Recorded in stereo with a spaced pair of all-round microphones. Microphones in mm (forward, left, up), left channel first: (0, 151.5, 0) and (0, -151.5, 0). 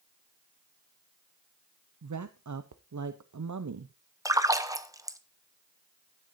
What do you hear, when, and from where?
2.0 s a woman speaking: 70° right (ahead or behind), 0.5 m
4.2 s a splash: 10° right (ahead or behind), 0.6 m